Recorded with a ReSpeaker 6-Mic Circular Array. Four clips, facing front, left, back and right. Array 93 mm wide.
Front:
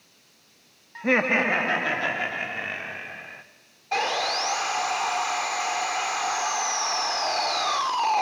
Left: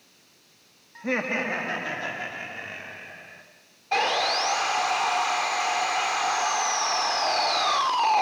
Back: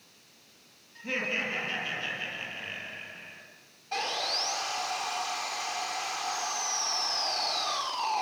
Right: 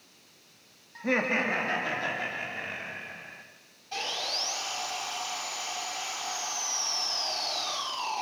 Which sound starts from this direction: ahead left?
Sawing, at 3.9 s.